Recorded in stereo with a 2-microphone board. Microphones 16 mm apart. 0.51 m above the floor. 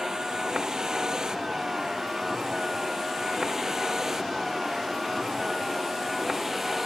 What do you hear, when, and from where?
0.0 s a vehicle: 45° right (ahead or behind); by 6.9 s 15° right (ahead or behind)